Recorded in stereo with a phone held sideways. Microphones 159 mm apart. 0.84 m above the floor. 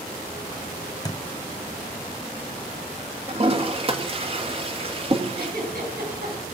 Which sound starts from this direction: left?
A thud, at 1.1 s.